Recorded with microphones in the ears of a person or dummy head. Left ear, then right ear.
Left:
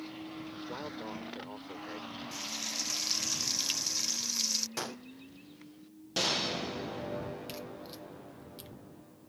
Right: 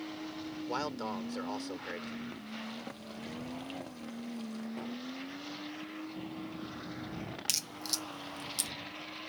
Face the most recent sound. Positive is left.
turn(degrees=-50)  # may be behind; listen again after turning